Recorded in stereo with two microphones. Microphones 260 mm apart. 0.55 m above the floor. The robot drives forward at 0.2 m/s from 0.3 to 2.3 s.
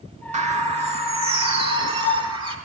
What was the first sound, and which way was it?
A bird, 25° right (ahead or behind).